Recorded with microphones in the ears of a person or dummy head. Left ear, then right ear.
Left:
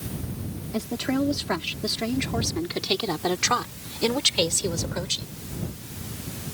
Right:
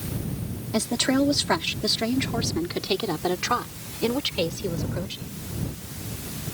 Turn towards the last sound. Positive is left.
turn(degrees=35)  # may be behind; listen again after turning